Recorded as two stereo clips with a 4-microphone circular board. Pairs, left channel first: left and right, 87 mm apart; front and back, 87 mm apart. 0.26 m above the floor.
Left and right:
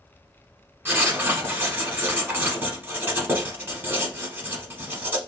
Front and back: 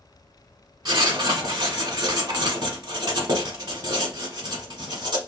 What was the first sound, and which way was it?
Writing, 155° right.